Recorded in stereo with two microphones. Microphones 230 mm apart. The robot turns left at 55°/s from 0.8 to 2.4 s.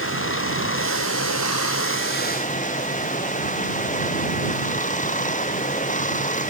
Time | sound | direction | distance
0.0 | running water | 120° left | ?